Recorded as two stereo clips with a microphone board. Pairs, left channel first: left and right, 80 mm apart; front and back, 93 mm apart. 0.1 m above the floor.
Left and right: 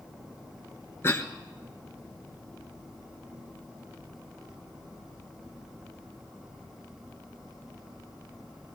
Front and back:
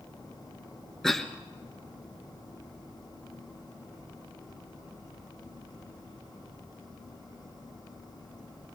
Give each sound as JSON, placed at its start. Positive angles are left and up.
{"t": 1.0, "sound": "a cough", "azimuth_deg": 80, "distance_m": 1.4}